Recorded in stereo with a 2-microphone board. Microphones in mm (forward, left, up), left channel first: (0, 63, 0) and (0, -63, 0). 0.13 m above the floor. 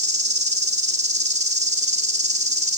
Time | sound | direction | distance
0.0 | an insect | 65° right (ahead or behind) | 1.7 m